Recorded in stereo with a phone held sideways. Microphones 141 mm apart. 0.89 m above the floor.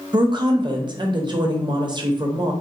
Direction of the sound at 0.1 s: 35° right (ahead or behind).